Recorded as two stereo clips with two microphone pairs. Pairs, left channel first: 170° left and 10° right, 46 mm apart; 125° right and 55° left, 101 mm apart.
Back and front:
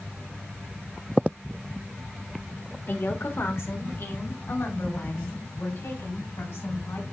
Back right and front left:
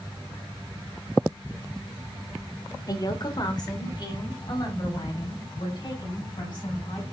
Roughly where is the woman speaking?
Behind.